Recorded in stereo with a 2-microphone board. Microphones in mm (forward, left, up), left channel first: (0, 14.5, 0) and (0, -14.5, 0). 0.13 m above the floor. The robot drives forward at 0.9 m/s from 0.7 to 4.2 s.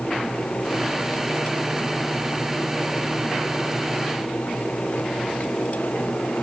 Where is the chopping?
No chopping in this recording.